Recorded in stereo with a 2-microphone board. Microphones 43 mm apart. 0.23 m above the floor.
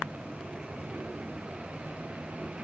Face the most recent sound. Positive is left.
No sound to turn to.